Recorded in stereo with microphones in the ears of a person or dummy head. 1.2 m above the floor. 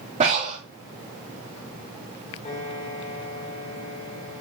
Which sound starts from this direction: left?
A piano, at 2.5 s.